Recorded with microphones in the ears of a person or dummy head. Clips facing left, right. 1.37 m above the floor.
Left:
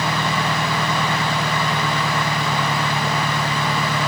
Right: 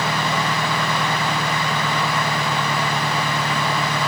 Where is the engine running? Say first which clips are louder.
Even; centre (ahead or behind).